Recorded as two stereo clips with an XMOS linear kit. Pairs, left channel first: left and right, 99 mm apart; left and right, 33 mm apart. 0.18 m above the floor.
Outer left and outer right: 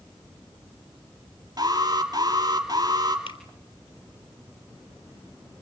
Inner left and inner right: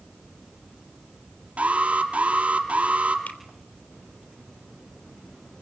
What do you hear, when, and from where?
1.6 s an alarm: 45° right (ahead or behind), 3.5 m
3.3 s a finger snap: 65° left (ahead or behind), 3.5 m